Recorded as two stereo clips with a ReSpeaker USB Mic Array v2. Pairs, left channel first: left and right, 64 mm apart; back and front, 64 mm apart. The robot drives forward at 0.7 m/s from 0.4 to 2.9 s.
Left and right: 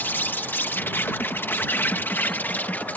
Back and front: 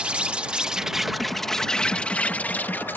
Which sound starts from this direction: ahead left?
An insect, at 0.0 s.